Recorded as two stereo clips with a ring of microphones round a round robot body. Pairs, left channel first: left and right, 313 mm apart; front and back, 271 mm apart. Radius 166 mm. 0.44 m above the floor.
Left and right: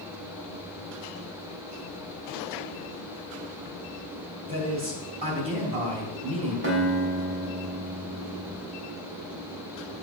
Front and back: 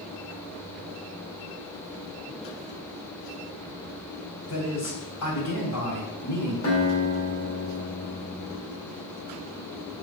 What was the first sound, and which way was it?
A man speaking, 20° right.